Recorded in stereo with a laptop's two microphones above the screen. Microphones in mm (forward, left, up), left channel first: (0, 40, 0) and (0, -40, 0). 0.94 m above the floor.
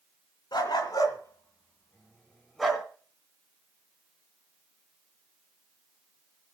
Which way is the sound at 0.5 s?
60° left (ahead or behind).